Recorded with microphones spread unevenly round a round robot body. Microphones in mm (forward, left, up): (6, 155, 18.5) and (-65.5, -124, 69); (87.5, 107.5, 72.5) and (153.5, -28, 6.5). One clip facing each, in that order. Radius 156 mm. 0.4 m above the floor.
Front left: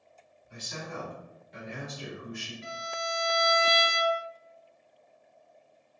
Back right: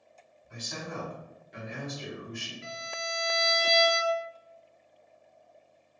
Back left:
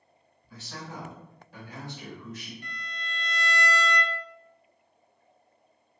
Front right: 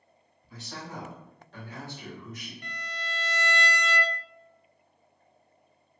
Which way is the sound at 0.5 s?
85° right.